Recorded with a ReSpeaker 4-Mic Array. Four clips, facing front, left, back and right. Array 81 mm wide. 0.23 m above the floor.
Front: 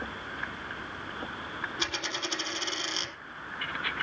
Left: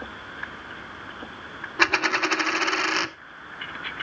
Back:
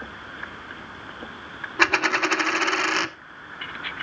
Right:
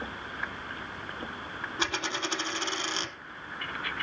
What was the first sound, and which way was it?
A dropped coin, 145° left.